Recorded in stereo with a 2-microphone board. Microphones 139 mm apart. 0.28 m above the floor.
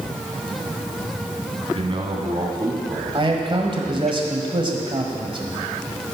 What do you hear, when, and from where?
1.7 s a man speaking: 45° right (ahead or behind), 2 m; by 4.1 s 5° left (ahead or behind), 1.5 m
3.1 s a man speaking: 40° right (ahead or behind), 1.3 m